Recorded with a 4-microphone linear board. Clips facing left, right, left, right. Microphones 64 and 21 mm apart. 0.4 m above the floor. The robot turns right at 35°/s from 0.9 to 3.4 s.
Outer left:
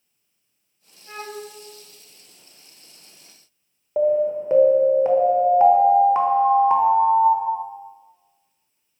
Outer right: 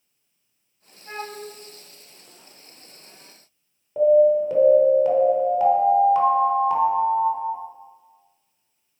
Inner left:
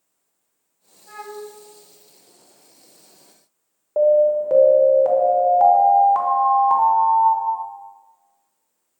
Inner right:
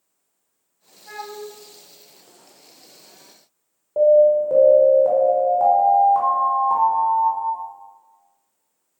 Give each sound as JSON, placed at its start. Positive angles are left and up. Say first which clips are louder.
{"t": 1.1, "sound": "a flute", "louder": "even, inner right 1 dB", "side_deg": -30, "distance_m": 1.6}
{"t": 4.0, "sound": "an alarm", "louder": "outer right 4 dB, inner right 2 dB", "side_deg": 30, "distance_m": 1.2}